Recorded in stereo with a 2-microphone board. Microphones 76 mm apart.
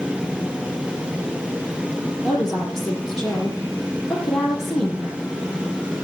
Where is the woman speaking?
Centre (ahead or behind), 7 m.